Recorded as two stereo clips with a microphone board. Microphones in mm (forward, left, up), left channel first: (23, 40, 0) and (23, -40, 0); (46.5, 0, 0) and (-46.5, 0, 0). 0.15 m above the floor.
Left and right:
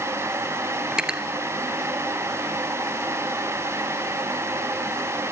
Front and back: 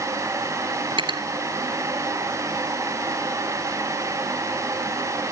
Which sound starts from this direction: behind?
Cutlery clinking, at 0.9 s.